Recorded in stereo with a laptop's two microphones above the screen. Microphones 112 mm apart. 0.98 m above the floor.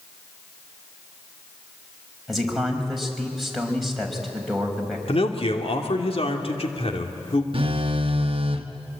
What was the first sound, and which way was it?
A man speaking, centre (ahead or behind).